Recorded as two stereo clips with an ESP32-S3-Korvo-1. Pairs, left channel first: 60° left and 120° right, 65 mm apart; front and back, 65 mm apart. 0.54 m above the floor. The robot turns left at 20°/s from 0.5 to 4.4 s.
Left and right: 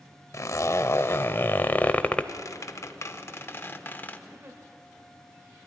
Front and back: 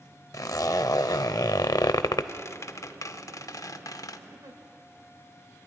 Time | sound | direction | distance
0.3 | a zipper | 25° left | 0.6 m
2.3 | a squeak | 35° left | 0.7 m
4.3 | a giggle | 165° right | 2.5 m